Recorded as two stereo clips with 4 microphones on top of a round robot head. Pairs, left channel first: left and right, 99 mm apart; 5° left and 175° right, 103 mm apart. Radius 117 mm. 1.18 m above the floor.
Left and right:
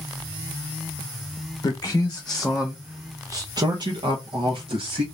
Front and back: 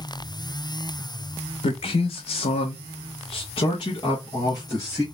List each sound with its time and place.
1.6 s a man speaking: 30° left, 0.8 m; by 5.0 s 65° right, 1.5 m